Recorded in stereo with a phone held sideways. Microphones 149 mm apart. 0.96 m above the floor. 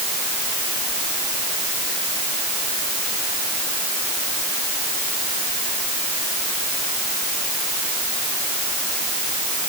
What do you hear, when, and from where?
Only background noise.